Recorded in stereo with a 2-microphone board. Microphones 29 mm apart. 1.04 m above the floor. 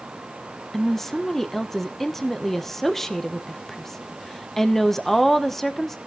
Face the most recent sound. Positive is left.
turn(degrees=10)  # may be behind; listen again after turning